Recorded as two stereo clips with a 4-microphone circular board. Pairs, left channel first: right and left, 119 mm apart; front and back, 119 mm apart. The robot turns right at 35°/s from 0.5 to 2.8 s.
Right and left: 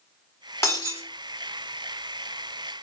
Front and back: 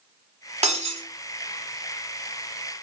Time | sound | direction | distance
0.6 | breaking glass | 155° right | 0.9 m